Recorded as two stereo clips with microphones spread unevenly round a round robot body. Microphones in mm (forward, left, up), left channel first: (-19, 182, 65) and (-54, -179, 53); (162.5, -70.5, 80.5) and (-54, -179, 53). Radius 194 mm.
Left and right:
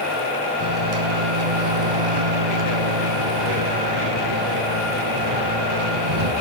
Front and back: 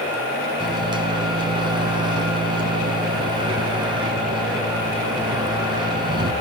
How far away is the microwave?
About 3 m.